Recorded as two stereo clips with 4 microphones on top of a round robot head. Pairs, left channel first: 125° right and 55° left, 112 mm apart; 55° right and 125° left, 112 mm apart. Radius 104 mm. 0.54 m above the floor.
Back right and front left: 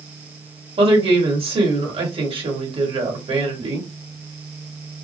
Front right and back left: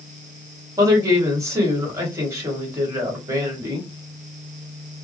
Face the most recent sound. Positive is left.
turn(degrees=70)